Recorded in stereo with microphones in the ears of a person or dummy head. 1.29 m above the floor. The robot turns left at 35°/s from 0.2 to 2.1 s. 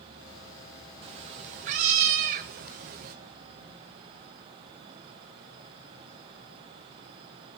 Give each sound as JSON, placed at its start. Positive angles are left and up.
{"t": 1.0, "sound": "a cat meowing", "azimuth_deg": -60, "distance_m": 0.5}